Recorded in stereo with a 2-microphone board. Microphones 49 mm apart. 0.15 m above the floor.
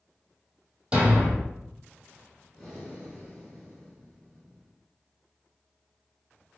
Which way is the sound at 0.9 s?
25° right (ahead or behind).